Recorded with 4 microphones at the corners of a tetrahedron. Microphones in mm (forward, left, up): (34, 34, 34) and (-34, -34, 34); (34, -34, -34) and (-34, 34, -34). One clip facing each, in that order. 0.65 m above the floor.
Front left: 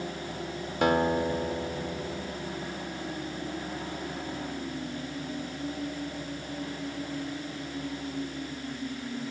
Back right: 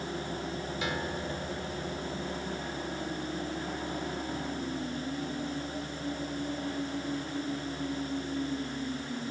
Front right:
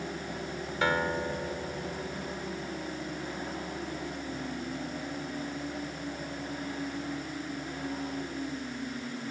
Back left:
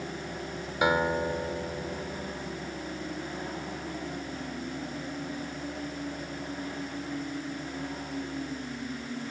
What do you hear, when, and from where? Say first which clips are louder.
0.8 s a guitar: front left 13 dB, back left 3 dB; 65° left